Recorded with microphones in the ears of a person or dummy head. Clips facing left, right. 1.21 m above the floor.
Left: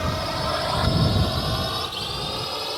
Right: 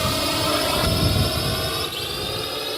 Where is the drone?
50° right (ahead or behind); by 2.8 s 25° right (ahead or behind).